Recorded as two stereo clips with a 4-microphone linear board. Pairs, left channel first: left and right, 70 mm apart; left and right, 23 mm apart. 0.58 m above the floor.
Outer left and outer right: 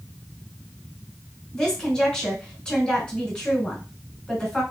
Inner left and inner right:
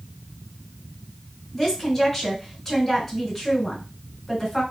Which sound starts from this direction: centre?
A woman speaking, at 1.5 s.